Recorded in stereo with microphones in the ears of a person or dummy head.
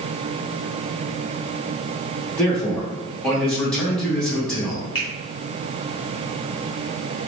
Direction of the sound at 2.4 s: 10° left (ahead or behind).